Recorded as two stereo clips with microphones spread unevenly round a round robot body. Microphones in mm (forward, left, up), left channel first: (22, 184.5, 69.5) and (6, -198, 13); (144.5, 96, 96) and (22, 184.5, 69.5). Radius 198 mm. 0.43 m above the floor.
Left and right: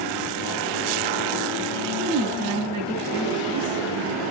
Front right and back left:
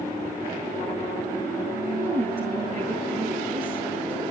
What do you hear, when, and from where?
2.0 s a woman speaking: 160° right, 5 m